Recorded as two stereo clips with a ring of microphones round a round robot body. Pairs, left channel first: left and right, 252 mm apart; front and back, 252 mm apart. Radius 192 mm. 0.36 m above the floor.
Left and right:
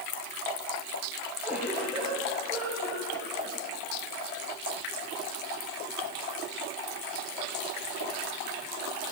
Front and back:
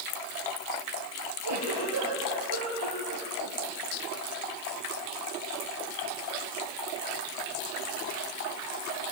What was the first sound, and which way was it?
A giggle, 175° right.